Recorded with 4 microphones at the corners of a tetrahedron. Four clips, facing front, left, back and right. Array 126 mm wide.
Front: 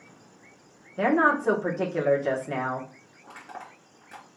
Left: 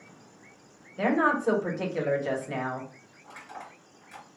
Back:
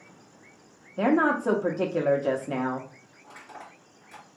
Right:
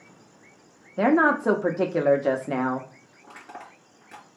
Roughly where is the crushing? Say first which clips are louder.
Right 1 dB, front 3 dB; ahead right.